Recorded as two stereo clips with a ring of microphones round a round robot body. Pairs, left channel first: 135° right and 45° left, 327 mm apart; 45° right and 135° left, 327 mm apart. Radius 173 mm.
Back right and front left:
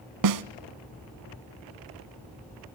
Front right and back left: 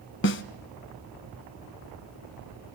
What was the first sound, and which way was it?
A snare drum, 15° left.